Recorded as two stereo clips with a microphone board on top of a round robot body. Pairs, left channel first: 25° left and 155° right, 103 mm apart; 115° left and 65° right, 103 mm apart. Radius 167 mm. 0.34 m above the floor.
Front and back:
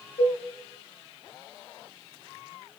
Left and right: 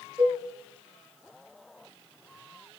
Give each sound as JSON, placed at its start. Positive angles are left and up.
{"t": 0.2, "sound": "a cowbell", "azimuth_deg": 0, "distance_m": 10.0}